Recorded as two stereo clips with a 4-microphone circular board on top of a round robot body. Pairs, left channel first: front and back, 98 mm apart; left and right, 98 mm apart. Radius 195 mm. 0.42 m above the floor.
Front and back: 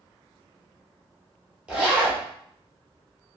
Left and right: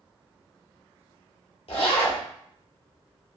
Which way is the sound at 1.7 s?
100° left.